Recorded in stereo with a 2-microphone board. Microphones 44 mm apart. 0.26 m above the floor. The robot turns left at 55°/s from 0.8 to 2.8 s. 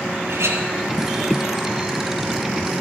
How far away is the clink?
About 3.5 m.